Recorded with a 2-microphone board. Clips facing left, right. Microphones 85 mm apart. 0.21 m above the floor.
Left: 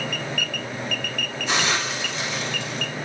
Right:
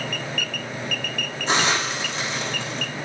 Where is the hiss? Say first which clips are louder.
Right 2 dB; 30° right (ahead or behind), 9.5 m.